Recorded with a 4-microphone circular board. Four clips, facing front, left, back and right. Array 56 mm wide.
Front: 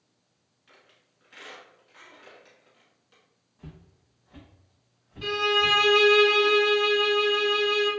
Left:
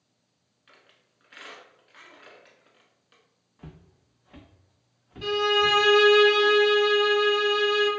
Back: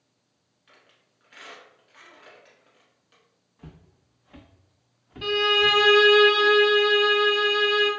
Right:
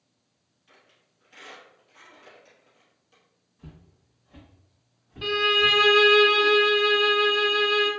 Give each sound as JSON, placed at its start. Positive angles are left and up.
{"t": 0.7, "sound": "a squeak", "azimuth_deg": 100, "distance_m": 1.1}
{"t": 3.6, "sound": "footsteps", "azimuth_deg": 105, "distance_m": 0.7}
{"t": 5.2, "sound": "a violin", "azimuth_deg": -115, "distance_m": 0.6}